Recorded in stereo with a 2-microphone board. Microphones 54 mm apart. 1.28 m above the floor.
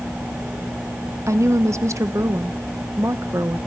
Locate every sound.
1.3 s a woman speaking: 65° right (ahead or behind), 1.0 m